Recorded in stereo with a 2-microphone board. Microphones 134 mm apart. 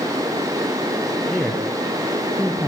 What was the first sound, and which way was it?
A man speaking, 5° left (ahead or behind).